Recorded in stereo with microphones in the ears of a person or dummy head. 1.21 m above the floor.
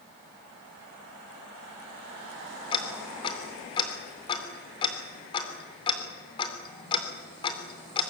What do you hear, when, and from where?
2.7 s ticking: 25° left (ahead or behind), 3 m